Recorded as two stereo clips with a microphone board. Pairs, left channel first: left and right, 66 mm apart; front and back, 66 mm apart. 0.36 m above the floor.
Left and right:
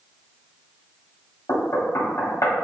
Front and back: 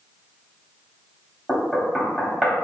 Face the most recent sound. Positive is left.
turn(degrees=95)